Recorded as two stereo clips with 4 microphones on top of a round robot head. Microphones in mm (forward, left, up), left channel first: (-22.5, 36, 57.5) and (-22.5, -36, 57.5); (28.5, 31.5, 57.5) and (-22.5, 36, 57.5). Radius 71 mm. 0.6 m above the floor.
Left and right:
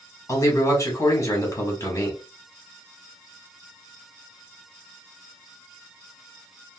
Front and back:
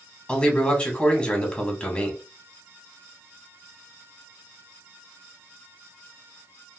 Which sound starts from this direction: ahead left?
A man speaking, at 0.3 s.